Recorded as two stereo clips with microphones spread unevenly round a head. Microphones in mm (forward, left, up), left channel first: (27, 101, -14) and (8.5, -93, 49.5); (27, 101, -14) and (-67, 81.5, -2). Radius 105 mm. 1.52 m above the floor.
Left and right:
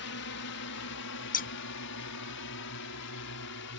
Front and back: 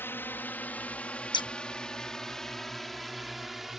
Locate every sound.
0.0 s a drone: 80° left; by 3.8 s 105° left
1.3 s scissors: 30° left